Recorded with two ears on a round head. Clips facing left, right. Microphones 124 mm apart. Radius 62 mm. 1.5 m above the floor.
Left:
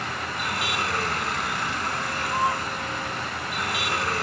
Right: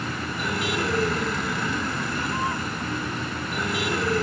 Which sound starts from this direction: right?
A vehicle, at 0.0 s.